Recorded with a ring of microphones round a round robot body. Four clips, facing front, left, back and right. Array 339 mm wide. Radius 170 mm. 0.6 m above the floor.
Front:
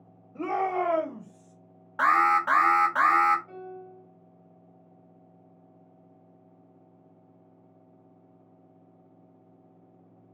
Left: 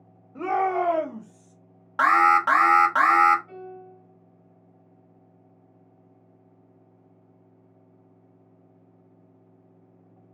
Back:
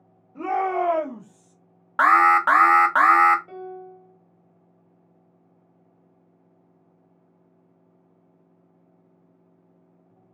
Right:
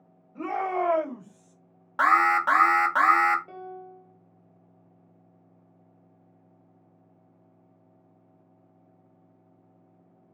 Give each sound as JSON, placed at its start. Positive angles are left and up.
{"t": 0.3, "sound": "a shout", "azimuth_deg": 80, "distance_m": 1.2}
{"t": 2.0, "sound": "an alarm", "azimuth_deg": 165, "distance_m": 0.6}
{"t": 3.5, "sound": "a piano", "azimuth_deg": -135, "distance_m": 1.4}